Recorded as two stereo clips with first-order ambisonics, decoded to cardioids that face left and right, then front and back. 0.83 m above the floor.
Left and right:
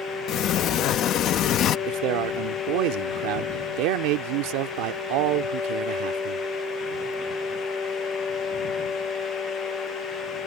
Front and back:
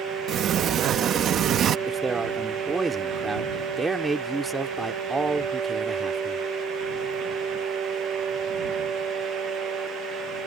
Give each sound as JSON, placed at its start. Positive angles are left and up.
{"t": 0.3, "sound": "a sliding door", "azimuth_deg": 130}
{"t": 1.9, "sound": "a man speaking", "azimuth_deg": -100}